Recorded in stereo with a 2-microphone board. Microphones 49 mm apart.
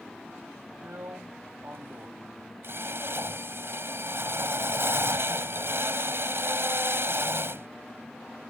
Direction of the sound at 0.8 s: 50° right (ahead or behind).